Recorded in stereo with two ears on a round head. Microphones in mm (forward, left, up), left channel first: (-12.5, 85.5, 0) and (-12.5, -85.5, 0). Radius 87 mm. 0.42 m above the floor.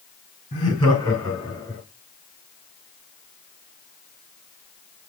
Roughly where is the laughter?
Left.